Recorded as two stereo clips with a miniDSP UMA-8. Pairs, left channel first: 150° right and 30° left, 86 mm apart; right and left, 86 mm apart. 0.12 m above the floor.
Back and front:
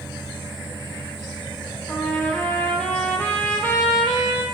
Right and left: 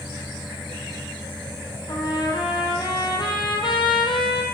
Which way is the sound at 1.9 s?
75° right.